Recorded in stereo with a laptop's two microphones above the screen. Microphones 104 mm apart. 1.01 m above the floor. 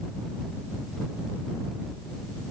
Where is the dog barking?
I don't hear a dog barking.